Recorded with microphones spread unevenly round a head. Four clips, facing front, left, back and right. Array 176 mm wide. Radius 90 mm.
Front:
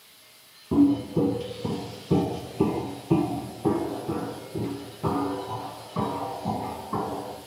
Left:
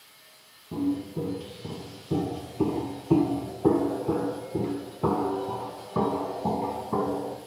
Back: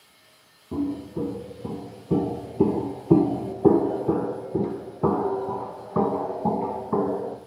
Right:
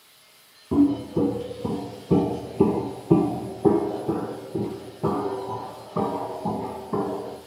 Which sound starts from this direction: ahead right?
Footsteps, at 0.7 s.